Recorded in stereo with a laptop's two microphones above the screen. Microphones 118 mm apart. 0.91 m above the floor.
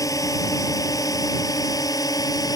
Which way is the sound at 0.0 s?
30° left (ahead or behind).